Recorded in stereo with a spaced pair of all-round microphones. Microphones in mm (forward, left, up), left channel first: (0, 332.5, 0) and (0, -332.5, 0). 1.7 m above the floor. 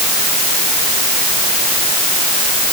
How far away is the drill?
I don't hear a drill.